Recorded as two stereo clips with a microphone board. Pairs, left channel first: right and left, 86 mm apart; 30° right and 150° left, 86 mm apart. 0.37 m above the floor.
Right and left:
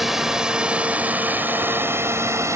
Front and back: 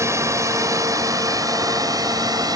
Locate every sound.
0.0 s a drone: 175° left; by 2.6 s 135° left